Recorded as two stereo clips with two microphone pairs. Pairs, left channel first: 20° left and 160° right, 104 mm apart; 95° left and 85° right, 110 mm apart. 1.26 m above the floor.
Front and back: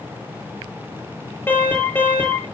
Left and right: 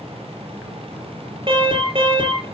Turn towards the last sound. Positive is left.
turn(degrees=-50)